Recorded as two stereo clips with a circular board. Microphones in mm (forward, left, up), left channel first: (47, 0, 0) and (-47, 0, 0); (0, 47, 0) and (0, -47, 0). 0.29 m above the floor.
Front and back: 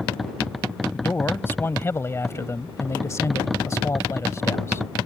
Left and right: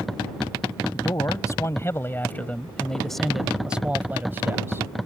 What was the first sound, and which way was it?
A man speaking, 60° left.